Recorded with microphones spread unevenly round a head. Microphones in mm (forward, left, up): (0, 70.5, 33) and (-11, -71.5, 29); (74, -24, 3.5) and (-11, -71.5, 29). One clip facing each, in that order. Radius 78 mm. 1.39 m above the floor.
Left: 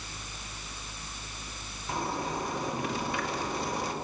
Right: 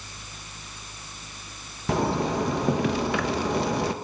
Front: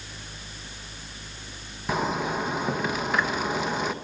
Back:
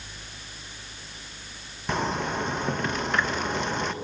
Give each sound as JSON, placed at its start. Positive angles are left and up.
{"t": 1.9, "sound": "a zipper", "azimuth_deg": -60, "distance_m": 1.2}